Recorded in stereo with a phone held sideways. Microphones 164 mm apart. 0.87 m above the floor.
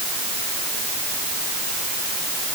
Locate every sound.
Only background noise.